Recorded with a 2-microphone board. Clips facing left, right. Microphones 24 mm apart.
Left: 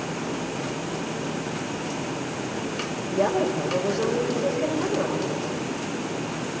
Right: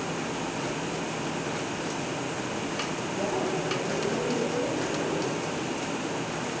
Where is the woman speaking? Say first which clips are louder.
Left 7 dB; 70° left (ahead or behind), 6.5 m.